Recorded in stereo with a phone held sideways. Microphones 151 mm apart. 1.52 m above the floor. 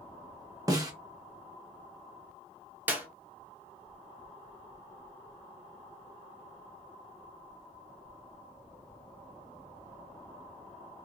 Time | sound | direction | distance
0.7 | a snare drum | 25° right (ahead or behind) | 0.8 m
2.9 | a clap | 10° right (ahead or behind) | 0.8 m